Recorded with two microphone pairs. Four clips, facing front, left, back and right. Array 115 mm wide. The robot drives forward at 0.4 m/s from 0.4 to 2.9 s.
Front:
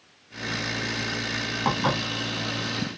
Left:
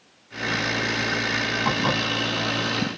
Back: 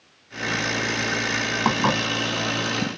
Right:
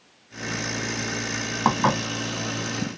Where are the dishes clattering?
110° right, 1.0 m; by 2.0 s 115° right, 1.1 m.